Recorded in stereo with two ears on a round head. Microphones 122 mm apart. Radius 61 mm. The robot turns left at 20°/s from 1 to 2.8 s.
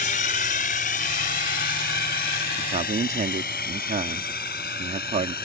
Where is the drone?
65° left (ahead or behind); by 5.5 s 75° left (ahead or behind).